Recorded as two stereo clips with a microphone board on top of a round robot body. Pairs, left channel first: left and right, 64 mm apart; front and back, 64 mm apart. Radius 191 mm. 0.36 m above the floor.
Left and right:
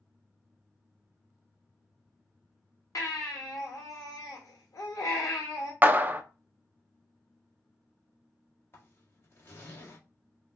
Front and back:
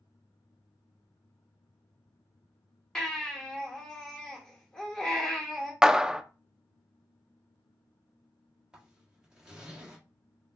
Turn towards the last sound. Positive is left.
turn(degrees=110)